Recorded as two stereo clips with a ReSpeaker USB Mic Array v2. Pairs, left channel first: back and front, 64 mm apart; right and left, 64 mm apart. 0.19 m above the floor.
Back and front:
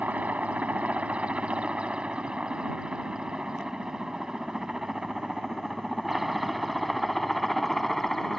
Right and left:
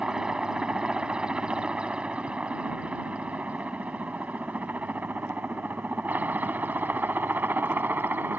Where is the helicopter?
25° left; by 8.4 s 95° left.